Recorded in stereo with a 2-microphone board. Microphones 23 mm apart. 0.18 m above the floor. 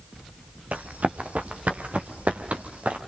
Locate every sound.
0.7 s running footsteps: 85° right, 2.5 m; by 3.0 s 70° right (ahead or behind), 3.5 m